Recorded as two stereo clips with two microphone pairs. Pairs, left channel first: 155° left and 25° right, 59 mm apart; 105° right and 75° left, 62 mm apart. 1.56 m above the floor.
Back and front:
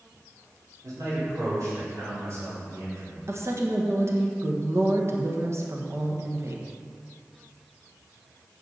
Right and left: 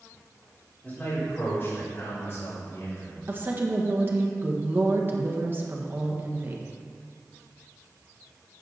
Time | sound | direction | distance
0.8 | a man speaking | 40° right | 4 m
3.3 | a woman speaking | 15° left | 1.5 m